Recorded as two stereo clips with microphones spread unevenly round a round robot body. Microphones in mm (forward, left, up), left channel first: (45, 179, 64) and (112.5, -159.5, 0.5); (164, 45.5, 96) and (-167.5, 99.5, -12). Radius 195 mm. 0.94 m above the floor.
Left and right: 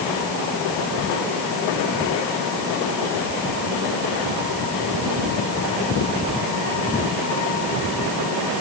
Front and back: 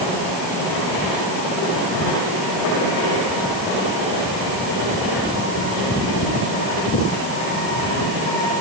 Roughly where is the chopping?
I don't hear chopping.